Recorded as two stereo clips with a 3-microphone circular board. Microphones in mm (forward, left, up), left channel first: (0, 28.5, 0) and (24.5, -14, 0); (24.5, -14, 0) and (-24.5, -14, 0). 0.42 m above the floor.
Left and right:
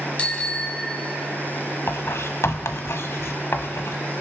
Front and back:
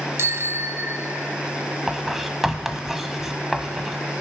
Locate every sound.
0.2 s a bicycle bell: straight behind, 2 m; by 1.4 s 150° right, 1.3 m
1.9 s writing: 95° left, 1.2 m